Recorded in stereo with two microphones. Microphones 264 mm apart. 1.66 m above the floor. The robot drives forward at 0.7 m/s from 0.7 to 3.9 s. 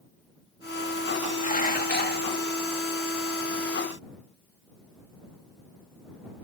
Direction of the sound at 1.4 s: 30° left (ahead or behind).